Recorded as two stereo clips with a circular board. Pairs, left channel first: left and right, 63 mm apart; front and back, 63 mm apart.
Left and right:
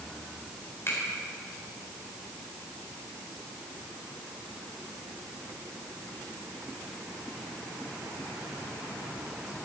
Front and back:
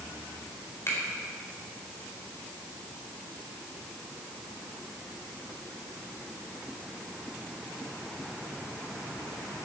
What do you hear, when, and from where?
0.9 s a finger snap: 40° left, 4 m